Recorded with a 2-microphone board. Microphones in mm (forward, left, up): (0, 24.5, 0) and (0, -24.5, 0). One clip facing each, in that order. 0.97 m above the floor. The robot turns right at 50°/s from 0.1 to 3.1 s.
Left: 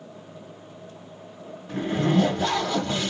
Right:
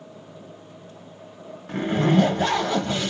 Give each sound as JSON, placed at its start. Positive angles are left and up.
{"t": 1.7, "sound": "a zipper", "azimuth_deg": -85, "distance_m": 1.2}